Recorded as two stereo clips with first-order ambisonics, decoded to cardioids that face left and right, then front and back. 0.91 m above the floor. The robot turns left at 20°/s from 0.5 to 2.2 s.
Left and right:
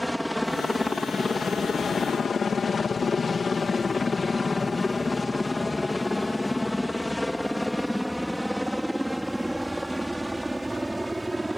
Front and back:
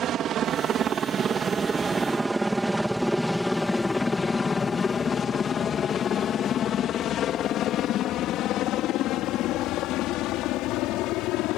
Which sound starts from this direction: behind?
A helicopter, at 0.0 s.